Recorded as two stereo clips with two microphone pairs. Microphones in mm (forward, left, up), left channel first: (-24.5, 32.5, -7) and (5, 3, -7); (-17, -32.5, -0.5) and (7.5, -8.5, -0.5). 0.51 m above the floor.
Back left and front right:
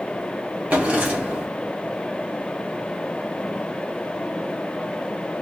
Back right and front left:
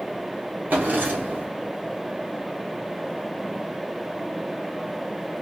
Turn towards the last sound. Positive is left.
turn(degrees=10)